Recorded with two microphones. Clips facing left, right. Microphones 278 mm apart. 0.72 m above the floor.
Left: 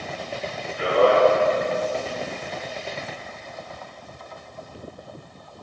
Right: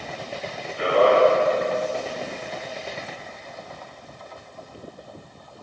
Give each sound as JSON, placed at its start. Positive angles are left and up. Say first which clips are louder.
{"t": 0.8, "sound": "a man speaking", "louder": "even", "side_deg": -60, "distance_m": 1.1}